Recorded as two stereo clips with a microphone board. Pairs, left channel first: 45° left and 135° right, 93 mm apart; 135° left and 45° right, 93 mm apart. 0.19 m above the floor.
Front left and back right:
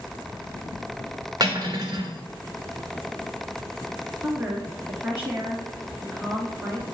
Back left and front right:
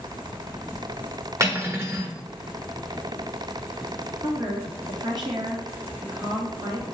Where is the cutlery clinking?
100° right, 1.3 m.